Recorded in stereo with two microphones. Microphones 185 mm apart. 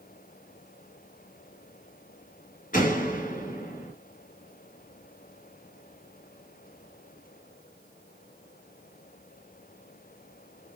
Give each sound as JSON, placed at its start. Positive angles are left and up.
{"t": 2.7, "sound": "a door slam", "side_deg": 45, "distance_m": 3.5}